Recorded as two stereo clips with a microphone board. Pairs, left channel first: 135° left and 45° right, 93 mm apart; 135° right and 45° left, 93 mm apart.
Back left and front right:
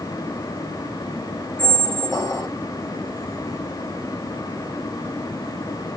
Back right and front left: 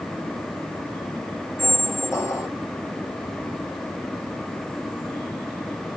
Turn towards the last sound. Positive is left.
turn(degrees=175)